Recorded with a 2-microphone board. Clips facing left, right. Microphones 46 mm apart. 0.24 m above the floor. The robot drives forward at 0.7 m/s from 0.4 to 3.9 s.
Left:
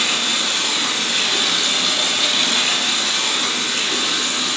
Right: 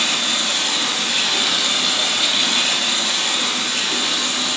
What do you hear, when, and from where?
0.0 s running water: centre (ahead or behind), 1.2 m